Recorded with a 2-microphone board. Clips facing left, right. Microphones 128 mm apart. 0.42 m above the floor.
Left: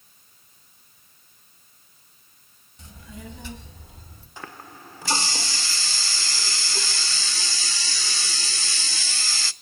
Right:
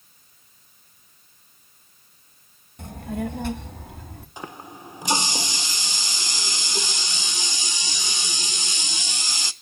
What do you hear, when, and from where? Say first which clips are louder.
2.8 s a child speaking: right 13 dB; 55° right (ahead or behind), 1.2 m; by 4.3 s 60° right (ahead or behind), 2 m
4.4 s a running tap: right 3 dB; 20° right (ahead or behind), 0.6 m